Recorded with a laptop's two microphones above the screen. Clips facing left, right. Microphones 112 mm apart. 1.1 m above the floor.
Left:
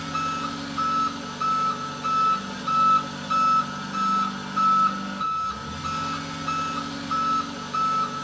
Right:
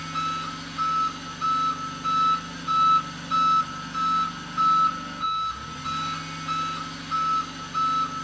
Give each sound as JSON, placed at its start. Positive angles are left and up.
{"t": 0.0, "sound": "an engine running", "side_deg": 75, "distance_m": 1.3}